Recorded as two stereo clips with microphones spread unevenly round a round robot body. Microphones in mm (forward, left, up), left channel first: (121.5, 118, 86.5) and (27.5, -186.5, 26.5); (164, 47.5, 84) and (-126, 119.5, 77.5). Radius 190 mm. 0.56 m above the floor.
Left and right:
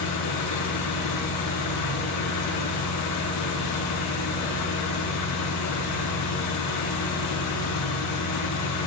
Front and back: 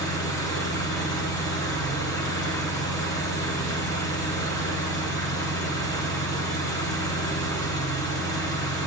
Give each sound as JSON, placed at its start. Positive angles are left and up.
{"t": 0.0, "sound": "an engine running", "azimuth_deg": 65, "distance_m": 6.5}